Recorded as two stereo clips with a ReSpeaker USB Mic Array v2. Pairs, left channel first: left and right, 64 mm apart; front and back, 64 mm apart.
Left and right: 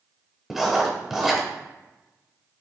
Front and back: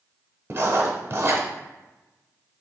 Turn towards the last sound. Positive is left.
turn(degrees=-175)